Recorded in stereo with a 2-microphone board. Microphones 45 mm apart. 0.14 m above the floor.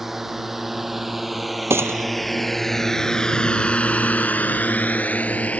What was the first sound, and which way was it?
A drone, 5° right (ahead or behind).